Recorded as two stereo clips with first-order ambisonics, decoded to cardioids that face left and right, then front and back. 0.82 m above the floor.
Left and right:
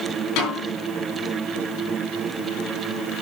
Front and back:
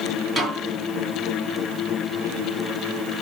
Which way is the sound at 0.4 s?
110° left.